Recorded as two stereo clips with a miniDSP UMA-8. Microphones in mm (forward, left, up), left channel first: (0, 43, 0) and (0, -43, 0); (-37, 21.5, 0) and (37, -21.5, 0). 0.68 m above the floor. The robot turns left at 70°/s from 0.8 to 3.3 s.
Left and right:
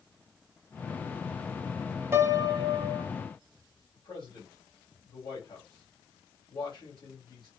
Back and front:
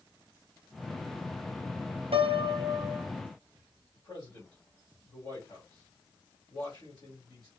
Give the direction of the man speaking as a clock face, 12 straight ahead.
8 o'clock.